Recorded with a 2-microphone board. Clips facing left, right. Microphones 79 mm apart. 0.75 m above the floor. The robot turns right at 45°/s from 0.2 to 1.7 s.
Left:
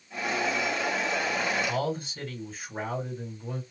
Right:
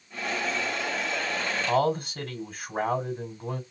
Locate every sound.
1.7 s a man speaking: 65° right (ahead or behind), 2.0 m